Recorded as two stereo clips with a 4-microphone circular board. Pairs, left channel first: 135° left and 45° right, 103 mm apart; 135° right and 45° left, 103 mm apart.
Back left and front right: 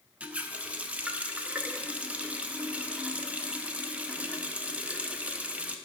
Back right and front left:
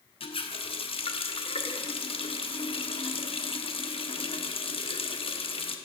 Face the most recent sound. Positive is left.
turn(degrees=-120)